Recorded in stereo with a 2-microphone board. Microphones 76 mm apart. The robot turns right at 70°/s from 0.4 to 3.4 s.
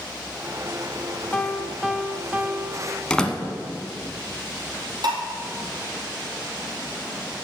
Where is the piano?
15° left (ahead or behind), 0.5 m; by 3.1 s 30° right (ahead or behind), 0.5 m.